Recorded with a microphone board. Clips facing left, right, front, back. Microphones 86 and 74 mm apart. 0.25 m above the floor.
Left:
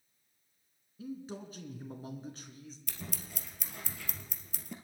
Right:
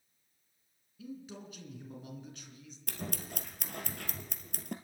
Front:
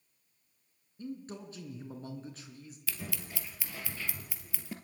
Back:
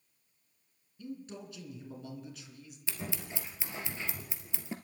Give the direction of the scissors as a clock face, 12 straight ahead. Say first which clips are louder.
Right 7 dB, back 2 dB; 4 o'clock.